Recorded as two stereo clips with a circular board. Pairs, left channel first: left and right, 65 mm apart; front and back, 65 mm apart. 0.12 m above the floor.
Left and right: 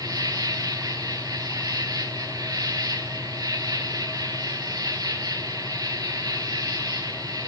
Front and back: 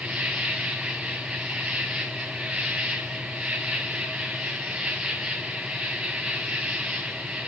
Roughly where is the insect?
Right.